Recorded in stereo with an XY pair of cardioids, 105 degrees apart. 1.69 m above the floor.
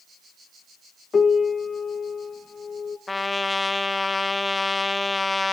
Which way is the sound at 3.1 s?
15° left.